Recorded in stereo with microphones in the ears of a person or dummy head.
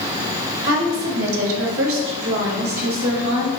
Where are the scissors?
No scissors in this recording.